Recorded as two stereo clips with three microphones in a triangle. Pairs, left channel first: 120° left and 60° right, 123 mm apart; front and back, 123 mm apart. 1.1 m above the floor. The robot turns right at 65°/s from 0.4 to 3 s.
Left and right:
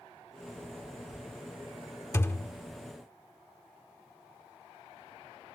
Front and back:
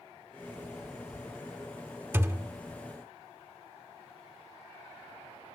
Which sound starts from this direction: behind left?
A thud, at 2.1 s.